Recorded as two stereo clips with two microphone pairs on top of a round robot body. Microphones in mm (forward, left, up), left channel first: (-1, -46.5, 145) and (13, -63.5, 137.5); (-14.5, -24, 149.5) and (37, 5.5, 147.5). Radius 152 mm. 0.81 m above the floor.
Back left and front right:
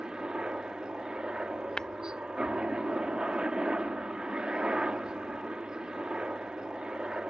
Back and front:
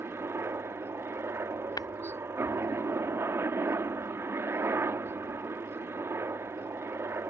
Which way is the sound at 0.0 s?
10° right.